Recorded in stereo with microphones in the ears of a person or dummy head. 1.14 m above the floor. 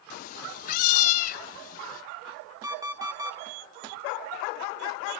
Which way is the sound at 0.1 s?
45° left (ahead or behind).